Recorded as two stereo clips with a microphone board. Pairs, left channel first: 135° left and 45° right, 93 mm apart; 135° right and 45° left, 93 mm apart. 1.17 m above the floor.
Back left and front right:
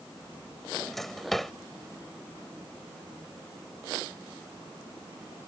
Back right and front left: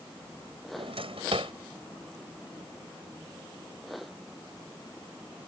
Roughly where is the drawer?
Ahead left.